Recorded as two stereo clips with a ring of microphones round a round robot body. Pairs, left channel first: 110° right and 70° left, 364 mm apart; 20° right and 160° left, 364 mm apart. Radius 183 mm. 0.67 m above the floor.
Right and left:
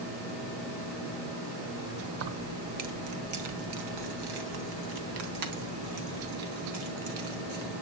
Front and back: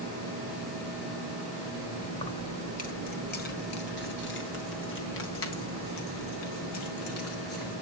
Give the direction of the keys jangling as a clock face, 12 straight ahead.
10 o'clock.